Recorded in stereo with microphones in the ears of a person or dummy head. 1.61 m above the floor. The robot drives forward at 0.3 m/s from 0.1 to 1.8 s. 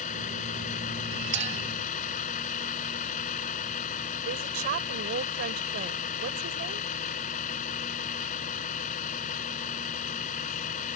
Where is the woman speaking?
45° right (ahead or behind).